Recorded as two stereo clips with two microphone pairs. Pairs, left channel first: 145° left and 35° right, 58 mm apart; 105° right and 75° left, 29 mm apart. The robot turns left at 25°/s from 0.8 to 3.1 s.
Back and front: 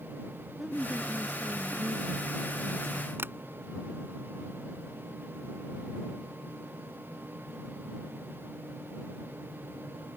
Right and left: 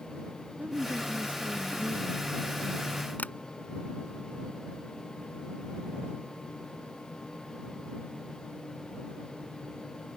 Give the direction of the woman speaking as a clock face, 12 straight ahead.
10 o'clock.